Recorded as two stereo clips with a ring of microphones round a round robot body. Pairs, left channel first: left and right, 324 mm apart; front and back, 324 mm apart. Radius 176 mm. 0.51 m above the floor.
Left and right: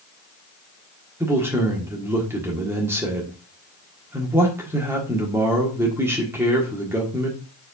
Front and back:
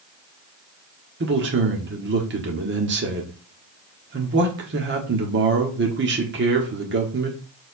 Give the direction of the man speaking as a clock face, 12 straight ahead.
6 o'clock.